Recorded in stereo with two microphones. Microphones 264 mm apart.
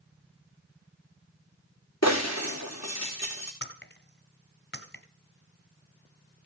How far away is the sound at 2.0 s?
About 4.5 m.